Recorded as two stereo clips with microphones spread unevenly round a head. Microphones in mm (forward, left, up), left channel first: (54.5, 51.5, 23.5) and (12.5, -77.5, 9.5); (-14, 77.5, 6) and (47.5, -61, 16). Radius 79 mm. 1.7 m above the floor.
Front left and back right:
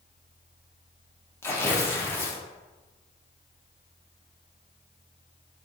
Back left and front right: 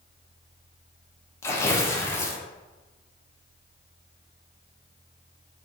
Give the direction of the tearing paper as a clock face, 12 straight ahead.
10 o'clock.